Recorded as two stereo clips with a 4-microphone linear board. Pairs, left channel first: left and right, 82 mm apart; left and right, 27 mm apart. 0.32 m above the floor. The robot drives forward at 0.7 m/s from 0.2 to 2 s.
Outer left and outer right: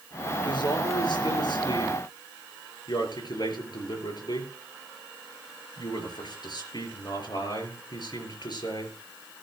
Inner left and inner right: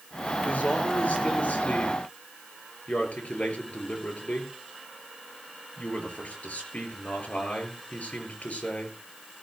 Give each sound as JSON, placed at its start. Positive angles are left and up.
{"t": 0.5, "sound": "a man speaking", "side_deg": 70, "distance_m": 5.0}